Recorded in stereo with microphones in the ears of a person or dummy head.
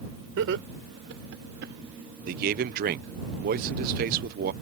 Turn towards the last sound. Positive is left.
turn(degrees=-50)  # may be behind; listen again after turning